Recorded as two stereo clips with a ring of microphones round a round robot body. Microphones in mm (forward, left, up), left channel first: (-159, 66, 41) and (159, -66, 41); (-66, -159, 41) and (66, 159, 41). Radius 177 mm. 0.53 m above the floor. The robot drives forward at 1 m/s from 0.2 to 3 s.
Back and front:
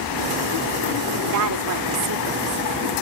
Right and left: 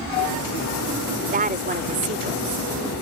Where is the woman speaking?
5° left; by 2.6 s 10° left.